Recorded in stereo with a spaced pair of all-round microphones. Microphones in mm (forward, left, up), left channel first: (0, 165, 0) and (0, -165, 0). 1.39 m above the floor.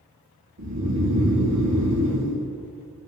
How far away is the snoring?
About 3 m.